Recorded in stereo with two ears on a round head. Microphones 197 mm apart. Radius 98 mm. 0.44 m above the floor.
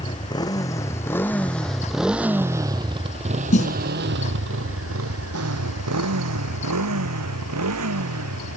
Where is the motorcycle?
20° left (ahead or behind); by 8.6 s 80° right.